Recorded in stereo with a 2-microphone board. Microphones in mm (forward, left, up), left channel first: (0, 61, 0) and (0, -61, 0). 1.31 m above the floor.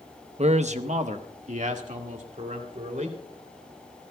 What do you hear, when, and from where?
0.4 s a man speaking: 60° right (ahead or behind), 0.7 m; by 3.2 s 85° right, 3 m